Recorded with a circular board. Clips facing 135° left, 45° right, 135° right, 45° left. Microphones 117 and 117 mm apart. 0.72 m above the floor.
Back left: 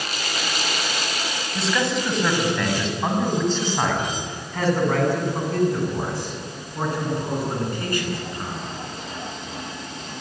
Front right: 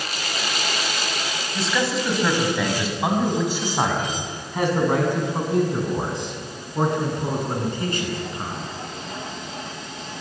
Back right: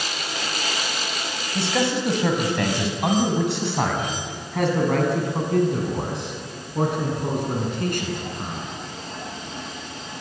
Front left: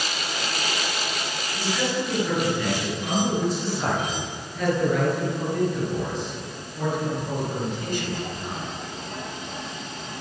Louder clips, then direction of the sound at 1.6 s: Even, back right 4 dB; 135° right.